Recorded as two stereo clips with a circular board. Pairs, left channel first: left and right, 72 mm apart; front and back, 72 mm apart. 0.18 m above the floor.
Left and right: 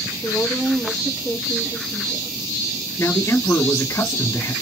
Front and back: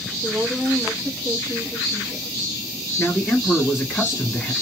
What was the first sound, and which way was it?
A woman speaking, 135° right.